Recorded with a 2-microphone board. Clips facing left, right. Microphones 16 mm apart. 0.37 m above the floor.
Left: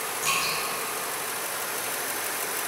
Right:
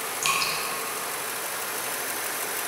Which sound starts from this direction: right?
Dripping, at 0.2 s.